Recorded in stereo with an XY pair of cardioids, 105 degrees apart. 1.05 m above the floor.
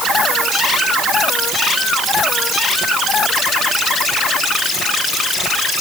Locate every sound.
Only background noise.